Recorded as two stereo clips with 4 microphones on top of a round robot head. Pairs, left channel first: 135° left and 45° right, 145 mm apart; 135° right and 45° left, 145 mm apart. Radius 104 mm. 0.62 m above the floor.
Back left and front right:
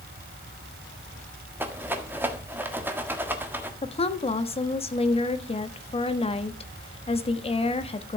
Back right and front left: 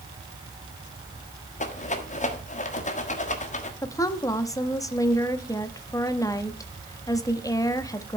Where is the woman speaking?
165° left, 1.3 m.